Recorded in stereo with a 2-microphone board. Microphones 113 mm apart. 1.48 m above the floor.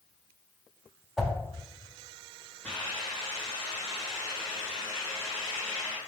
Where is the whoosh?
5° right (ahead or behind), 0.7 m.